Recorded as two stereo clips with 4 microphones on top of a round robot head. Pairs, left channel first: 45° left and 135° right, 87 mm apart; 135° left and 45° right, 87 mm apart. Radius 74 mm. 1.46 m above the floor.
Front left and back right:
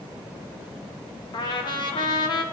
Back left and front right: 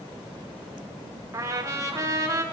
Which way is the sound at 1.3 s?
10° left.